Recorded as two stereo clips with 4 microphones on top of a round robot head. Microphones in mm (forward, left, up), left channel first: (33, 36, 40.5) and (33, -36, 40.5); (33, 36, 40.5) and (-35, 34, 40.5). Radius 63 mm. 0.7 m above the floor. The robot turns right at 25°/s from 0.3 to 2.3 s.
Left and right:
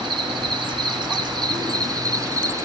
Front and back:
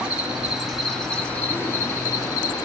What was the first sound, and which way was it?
An insect, 100° right.